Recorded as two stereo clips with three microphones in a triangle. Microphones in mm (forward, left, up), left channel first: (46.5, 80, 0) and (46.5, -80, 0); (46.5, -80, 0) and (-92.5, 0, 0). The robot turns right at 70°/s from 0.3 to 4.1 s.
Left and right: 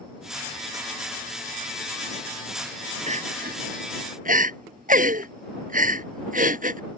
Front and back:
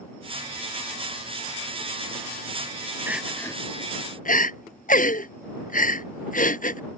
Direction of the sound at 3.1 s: 135° right.